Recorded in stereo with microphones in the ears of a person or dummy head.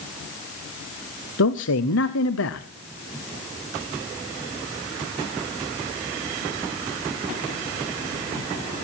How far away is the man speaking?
About 0.6 m.